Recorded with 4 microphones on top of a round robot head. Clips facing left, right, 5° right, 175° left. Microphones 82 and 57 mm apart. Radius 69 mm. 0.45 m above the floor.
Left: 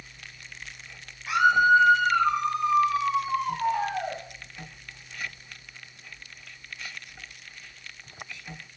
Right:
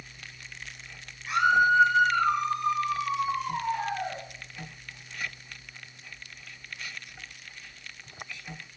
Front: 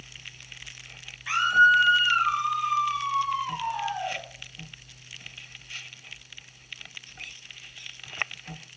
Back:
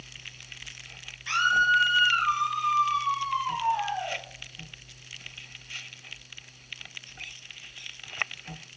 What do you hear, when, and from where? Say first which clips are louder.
1.3 s a scream: left 3 dB, front 4 dB; 70° left, 9.5 m; by 4.2 s 90° left, 11.5 m